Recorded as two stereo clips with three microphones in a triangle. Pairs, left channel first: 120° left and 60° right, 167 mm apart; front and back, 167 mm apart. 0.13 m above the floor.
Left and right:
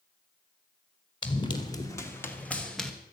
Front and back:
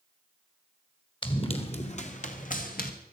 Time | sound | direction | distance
1.2 | running footsteps | 60° left | 2.5 m